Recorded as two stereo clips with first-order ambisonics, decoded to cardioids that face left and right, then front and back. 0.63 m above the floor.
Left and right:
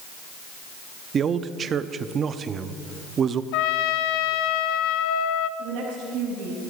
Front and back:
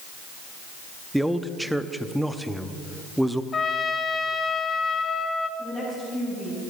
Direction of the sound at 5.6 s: 65° right.